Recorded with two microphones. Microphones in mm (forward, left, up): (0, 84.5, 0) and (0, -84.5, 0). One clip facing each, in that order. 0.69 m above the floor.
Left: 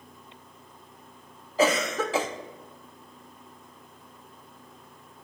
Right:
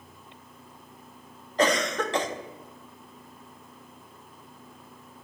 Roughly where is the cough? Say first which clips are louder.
Left 1 dB; centre.